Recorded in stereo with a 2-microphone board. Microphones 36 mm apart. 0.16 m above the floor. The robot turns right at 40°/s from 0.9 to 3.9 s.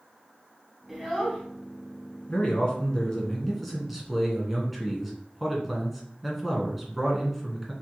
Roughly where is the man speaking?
Behind left.